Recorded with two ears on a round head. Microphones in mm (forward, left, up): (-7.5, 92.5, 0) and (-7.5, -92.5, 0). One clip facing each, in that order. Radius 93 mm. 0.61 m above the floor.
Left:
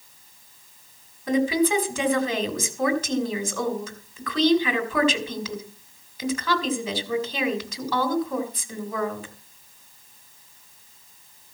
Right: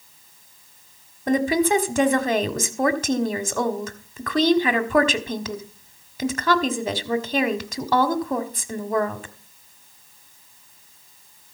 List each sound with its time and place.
1.3 s a woman speaking: 40° right (ahead or behind), 1.7 m